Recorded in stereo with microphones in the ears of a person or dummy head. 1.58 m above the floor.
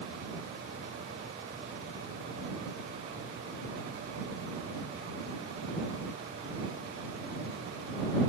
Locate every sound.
Only background noise.